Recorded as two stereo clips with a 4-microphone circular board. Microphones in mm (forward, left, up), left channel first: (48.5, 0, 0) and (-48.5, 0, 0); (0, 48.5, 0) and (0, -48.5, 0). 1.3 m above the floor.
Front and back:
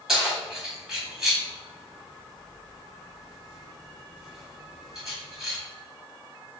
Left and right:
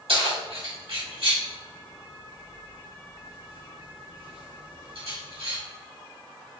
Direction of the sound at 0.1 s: 95° right.